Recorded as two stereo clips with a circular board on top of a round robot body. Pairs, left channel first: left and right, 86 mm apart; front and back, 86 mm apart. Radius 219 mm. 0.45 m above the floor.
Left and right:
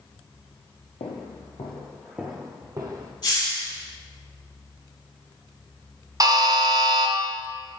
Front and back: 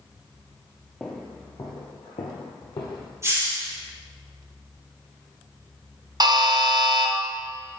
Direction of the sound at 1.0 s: 85° left.